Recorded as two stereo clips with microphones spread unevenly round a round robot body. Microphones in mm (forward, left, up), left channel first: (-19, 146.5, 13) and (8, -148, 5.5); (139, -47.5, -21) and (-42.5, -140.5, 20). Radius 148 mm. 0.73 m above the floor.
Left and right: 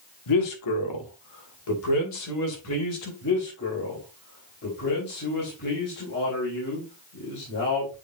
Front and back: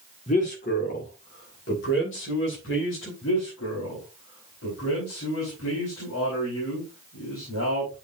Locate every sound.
0.3 s a man speaking: 85° left, 1.5 m; by 3.1 s 60° left, 3 m
3.2 s a man speaking: 40° left, 4 m